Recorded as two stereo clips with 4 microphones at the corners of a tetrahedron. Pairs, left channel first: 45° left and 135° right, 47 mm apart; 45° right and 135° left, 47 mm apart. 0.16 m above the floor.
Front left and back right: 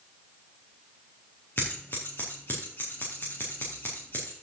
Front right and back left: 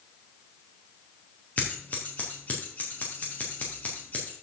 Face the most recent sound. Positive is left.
turn(degrees=10)